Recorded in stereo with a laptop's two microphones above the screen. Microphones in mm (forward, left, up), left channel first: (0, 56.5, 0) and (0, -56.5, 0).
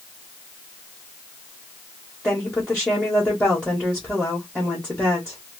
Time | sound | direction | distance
2.2 | a woman speaking | 10° left (ahead or behind) | 1.1 m